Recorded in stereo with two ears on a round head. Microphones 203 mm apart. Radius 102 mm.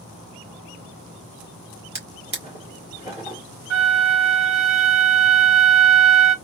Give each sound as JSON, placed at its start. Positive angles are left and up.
{"t": 1.9, "sound": "a drawer", "side_deg": -30, "distance_m": 2.0}
{"t": 3.7, "sound": "a flute", "side_deg": -65, "distance_m": 0.6}